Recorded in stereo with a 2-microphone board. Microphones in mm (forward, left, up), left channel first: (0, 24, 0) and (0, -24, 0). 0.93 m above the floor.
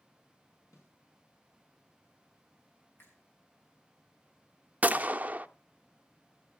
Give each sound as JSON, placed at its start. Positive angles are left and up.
{"t": 0.7, "sound": "a snare drum", "side_deg": 75, "distance_m": 5.5}
{"t": 3.0, "sound": "a finger snap", "side_deg": 50, "distance_m": 7.5}
{"t": 4.8, "sound": "a gunshot", "side_deg": -30, "distance_m": 0.6}